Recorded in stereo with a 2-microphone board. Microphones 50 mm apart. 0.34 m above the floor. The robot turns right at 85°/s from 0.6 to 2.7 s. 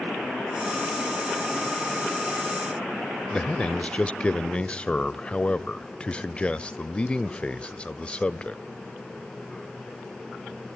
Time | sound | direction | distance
3.3 | a man speaking | 20° left (ahead or behind) | 1.0 m